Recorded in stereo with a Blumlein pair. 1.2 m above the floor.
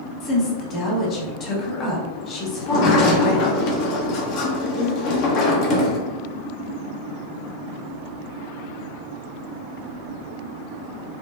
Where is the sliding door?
40° left, 0.6 m.